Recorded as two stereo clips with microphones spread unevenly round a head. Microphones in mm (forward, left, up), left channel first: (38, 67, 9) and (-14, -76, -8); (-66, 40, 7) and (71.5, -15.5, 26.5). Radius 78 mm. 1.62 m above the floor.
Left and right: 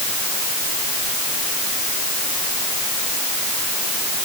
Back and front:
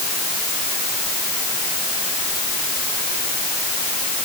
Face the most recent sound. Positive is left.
No sound to turn to.